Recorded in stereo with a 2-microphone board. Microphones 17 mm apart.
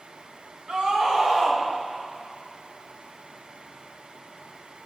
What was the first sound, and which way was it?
A scream, 55° right (ahead or behind).